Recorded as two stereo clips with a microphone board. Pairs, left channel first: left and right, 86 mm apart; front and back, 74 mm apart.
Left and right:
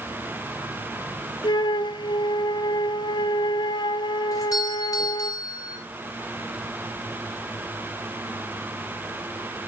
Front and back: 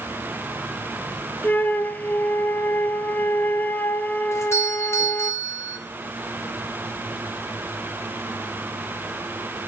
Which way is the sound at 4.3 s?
50° left.